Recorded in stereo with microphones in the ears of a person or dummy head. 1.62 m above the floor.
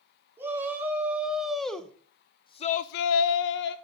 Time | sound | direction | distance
0.4 | a shout | 10° right (ahead or behind) | 2.5 m